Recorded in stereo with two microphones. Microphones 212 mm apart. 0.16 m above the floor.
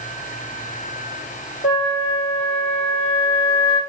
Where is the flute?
25° left (ahead or behind), 1.5 m.